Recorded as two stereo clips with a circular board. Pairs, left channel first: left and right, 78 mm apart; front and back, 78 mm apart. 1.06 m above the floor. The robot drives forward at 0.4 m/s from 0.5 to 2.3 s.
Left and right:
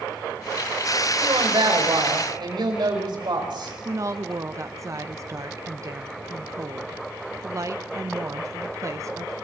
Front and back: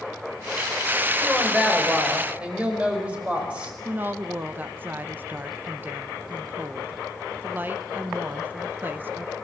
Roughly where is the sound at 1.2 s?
Right.